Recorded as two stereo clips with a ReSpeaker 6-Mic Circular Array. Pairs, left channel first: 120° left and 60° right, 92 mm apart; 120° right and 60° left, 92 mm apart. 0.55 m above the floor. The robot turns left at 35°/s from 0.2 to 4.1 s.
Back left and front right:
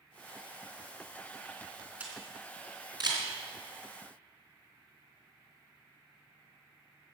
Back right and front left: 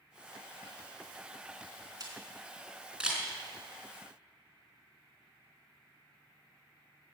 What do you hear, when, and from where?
2.0 s a camera shutter: 15° left, 3.5 m; by 3.3 s 30° right, 3.5 m